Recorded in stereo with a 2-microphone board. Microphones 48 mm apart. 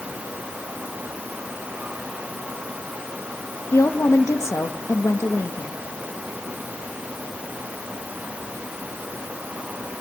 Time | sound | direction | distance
3.7 | a woman speaking | 75° left (ahead or behind) | 1.5 m